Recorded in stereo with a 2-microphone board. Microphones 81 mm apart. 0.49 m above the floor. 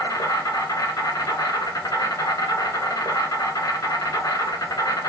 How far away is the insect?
About 1.4 m.